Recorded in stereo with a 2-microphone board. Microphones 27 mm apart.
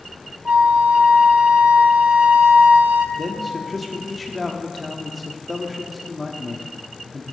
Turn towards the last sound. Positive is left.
turn(degrees=0)  # may be behind; listen again after turning